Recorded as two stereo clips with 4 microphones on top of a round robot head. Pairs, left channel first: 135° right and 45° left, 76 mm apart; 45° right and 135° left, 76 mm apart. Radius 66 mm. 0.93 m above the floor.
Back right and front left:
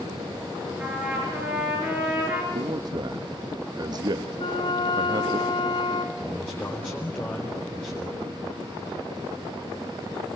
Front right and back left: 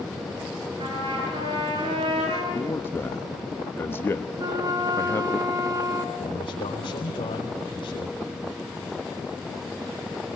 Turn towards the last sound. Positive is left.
turn(degrees=-65)